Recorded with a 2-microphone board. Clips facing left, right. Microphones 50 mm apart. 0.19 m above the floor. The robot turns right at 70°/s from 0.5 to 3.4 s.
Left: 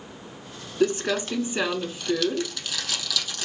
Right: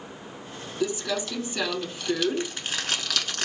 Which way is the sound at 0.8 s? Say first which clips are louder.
Left 5 dB; 60° left (ahead or behind).